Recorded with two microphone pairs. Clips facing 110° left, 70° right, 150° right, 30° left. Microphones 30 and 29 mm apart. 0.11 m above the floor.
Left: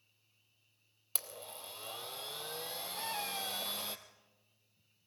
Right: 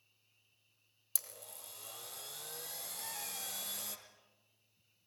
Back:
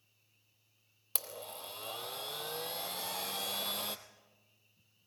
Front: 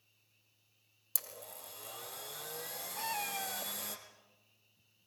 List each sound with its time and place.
1.1 s a blender: 165° left, 1.4 m
3.0 s a cat meowing: 75° left, 1.2 m